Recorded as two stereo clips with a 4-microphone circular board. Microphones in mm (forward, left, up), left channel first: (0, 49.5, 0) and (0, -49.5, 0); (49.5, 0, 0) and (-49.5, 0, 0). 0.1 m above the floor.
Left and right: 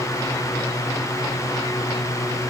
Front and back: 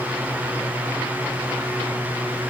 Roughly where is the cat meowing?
No cat meowing in this recording.